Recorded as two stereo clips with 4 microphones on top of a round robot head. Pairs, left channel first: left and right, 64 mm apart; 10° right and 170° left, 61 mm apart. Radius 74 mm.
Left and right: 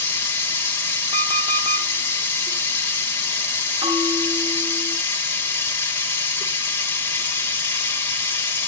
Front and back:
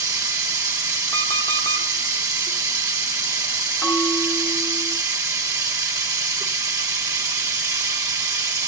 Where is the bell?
85° right, 7.5 m.